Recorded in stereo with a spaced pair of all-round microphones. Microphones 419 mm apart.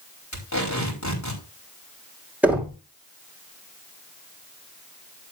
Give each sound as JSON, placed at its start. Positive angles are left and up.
{"t": 0.3, "sound": "tape being pulled", "side_deg": 40, "distance_m": 4.5}
{"t": 2.4, "sound": "knocking", "side_deg": -5, "distance_m": 2.5}